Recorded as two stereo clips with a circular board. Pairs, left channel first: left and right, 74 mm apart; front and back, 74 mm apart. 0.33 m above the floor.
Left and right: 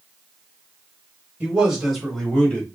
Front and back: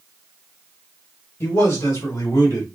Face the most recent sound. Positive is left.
turn(degrees=25)